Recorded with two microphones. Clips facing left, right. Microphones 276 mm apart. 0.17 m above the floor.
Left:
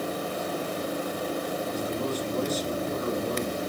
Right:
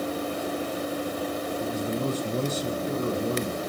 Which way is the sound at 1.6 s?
25° right (ahead or behind).